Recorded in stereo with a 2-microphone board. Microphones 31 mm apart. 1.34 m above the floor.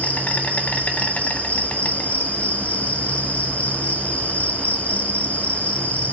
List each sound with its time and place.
0.0 s an insect: 50° left (ahead or behind), 1.6 m